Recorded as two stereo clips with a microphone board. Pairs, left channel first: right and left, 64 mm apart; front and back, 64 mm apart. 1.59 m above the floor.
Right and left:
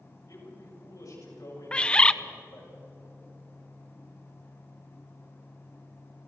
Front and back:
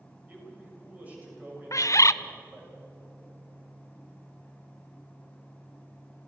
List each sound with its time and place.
0.3 s a man speaking: 115° right, 7.5 m
1.7 s a bird: 20° right, 0.5 m